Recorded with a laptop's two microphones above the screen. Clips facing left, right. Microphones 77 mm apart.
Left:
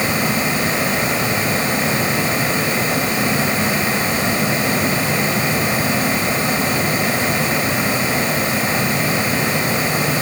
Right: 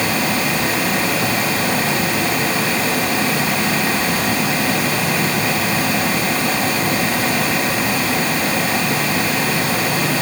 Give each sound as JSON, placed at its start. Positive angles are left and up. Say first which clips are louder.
{"t": 0.0, "sound": "a fan", "louder": "even", "side_deg": 25, "distance_m": 3.5}